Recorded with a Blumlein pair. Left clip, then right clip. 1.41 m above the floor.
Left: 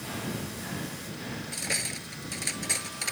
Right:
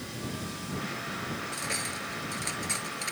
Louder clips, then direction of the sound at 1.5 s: Left 4 dB; 10° left.